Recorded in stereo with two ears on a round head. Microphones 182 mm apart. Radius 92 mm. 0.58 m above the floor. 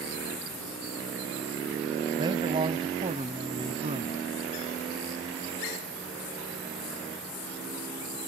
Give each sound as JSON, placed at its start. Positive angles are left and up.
{"t": 2.2, "sound": "a man speaking", "side_deg": -20}